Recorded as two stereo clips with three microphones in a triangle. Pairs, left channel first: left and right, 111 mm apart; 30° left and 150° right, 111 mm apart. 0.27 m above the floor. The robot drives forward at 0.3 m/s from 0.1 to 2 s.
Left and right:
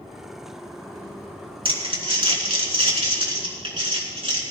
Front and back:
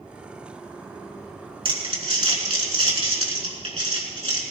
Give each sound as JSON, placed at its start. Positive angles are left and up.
{"t": 1.6, "sound": "crumpling", "azimuth_deg": -125, "distance_m": 3.0}